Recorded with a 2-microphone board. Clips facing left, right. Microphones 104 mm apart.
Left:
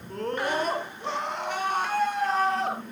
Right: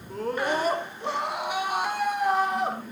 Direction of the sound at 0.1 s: Centre (ahead or behind).